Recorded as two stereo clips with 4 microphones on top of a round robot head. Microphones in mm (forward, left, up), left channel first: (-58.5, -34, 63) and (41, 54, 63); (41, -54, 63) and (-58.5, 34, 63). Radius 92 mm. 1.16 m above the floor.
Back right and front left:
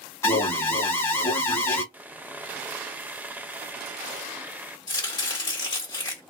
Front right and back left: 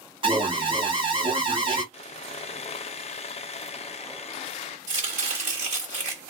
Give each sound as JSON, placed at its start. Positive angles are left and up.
{"t": 0.2, "sound": "an alarm", "azimuth_deg": 165, "distance_m": 1.5}
{"t": 1.9, "sound": "sawing", "azimuth_deg": -30, "distance_m": 0.5}
{"t": 4.9, "sound": "chopping", "azimuth_deg": 165, "distance_m": 1.5}